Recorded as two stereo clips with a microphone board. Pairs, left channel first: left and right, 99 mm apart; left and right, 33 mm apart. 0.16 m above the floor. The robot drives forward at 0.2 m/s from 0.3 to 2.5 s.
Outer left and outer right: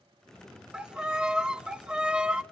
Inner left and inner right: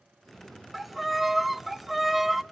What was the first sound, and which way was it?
A violin, 10° right (ahead or behind).